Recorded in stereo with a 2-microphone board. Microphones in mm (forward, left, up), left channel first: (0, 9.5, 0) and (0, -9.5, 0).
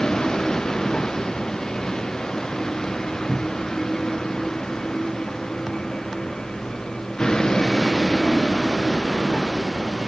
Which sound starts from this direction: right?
A cupboard door, at 3.3 s.